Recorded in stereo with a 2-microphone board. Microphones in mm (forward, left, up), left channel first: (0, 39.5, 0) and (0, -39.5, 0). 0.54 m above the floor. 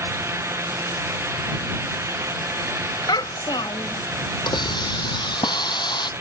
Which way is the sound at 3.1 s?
70° left (ahead or behind).